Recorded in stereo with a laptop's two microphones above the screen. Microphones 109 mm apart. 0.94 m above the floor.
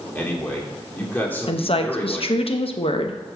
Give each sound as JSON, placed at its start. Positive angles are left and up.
{"t": 0.1, "sound": "a man speaking", "side_deg": 15, "distance_m": 2.0}
{"t": 1.5, "sound": "a woman speaking", "side_deg": 60, "distance_m": 0.8}